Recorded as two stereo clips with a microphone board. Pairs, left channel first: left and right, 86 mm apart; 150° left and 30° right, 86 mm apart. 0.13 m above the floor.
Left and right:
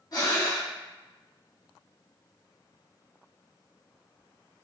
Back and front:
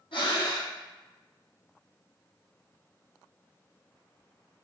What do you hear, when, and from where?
0.1 s breathing: 130° left, 2 m